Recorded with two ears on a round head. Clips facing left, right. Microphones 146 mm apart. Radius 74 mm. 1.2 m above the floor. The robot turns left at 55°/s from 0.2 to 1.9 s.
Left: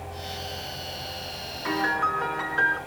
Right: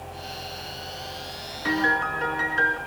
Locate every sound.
1.6 s a piano: 40° right (ahead or behind), 5 m; by 2.8 s 25° right (ahead or behind), 5 m